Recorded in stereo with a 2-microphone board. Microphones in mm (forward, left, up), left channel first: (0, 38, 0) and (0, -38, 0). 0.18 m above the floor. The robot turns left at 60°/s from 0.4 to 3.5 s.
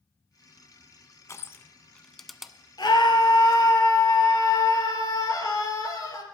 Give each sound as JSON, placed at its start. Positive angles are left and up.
{"t": 1.3, "sound": "crushing", "side_deg": 40, "distance_m": 0.6}
{"t": 2.8, "sound": "a scream", "azimuth_deg": 100, "distance_m": 3.0}